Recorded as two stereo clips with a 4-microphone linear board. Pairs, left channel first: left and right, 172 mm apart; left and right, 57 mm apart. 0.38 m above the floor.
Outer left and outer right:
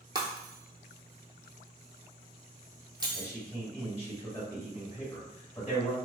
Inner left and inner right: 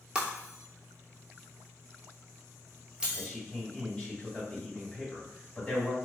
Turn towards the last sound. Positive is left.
turn(degrees=15)  # may be behind; listen again after turning